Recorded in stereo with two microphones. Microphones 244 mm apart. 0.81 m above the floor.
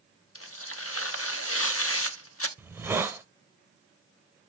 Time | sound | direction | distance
0.3 | tearing paper | 65° left (ahead or behind) | 0.7 m
2.6 | a hiss | 10° right (ahead or behind) | 1.0 m